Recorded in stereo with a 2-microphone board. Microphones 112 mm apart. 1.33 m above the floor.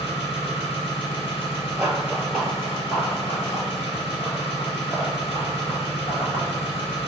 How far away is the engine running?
About 1.5 m.